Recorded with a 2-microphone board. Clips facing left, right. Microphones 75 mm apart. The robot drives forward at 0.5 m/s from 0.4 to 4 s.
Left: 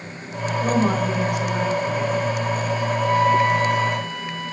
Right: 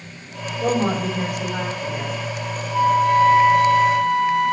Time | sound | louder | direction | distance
0.6 | a woman speaking | even | 65° right (ahead or behind) | 3.5 m
2.7 | a flute | right 7 dB | 45° right (ahead or behind) | 1.2 m